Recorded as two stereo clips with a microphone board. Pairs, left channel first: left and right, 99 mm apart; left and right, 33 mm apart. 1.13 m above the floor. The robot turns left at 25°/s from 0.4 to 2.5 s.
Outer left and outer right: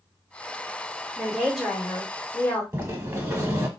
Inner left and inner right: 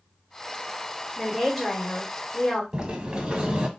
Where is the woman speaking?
170° right, 1.3 m; by 2.6 s 155° left, 1.3 m.